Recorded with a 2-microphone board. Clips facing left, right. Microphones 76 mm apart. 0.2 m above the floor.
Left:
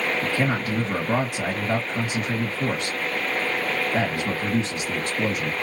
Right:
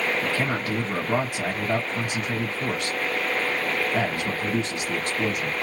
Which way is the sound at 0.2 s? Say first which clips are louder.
Left 2 dB; 10° left (ahead or behind).